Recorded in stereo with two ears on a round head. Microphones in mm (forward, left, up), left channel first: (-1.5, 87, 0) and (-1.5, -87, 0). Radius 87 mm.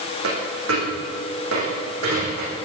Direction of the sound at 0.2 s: 85° right.